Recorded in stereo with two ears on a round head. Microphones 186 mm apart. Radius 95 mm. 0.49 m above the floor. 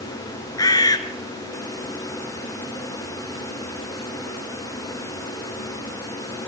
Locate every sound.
0.6 s a bird: 20° left (ahead or behind), 3 m